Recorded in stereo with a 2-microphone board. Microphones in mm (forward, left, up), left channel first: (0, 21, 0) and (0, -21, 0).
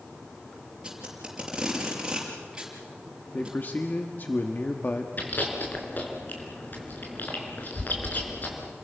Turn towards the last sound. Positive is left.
turn(degrees=50)  # may be behind; listen again after turning